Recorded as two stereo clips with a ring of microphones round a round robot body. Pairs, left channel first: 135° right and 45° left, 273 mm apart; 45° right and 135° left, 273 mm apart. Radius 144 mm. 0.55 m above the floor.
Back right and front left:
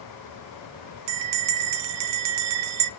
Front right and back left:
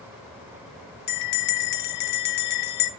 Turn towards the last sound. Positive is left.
turn(degrees=10)